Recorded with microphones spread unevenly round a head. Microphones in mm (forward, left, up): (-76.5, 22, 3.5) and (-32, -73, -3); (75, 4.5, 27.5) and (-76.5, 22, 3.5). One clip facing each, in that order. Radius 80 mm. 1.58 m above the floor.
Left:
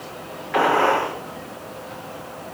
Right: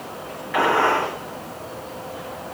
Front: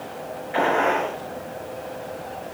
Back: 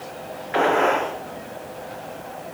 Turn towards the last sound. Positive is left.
turn(degrees=145)